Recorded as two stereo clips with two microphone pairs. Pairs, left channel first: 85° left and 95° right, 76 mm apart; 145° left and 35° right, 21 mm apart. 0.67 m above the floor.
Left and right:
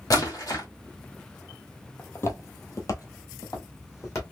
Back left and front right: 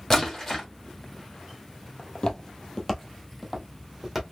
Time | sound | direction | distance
0.1 | a splash | 75° left | 1.5 m
2.0 | footsteps | 135° left | 0.9 m